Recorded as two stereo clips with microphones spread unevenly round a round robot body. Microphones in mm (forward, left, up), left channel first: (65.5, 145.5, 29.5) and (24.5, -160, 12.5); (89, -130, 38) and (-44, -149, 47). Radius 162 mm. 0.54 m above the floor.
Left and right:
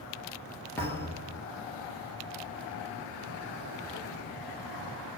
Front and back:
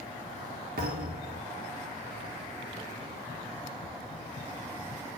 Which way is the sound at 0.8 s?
165° left.